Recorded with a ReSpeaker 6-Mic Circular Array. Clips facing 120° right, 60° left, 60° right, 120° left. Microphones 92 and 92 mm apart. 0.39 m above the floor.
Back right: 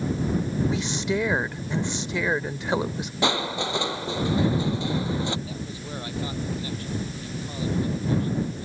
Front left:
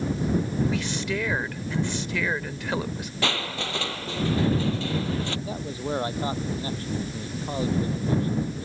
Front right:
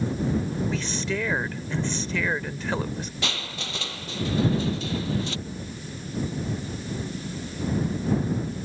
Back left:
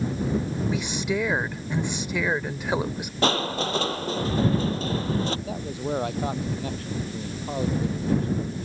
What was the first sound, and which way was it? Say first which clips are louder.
A woman speaking: back right 2 dB, back left 2 dB; 175° right.